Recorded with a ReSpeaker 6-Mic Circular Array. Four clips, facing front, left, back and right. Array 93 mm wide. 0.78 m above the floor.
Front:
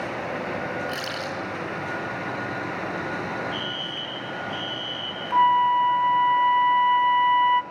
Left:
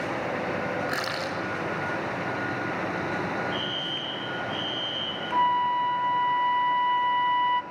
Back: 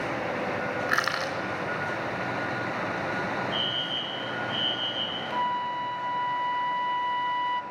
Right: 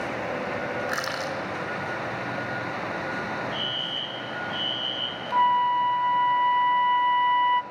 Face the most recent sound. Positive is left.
turn(degrees=-10)